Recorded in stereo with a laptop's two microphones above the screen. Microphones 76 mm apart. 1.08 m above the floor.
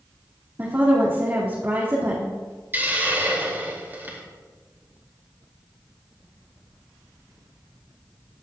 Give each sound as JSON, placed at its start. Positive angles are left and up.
{"t": 0.6, "sound": "a woman speaking", "side_deg": -30, "distance_m": 2.0}
{"t": 2.7, "sound": "a hiss", "side_deg": -25, "distance_m": 2.5}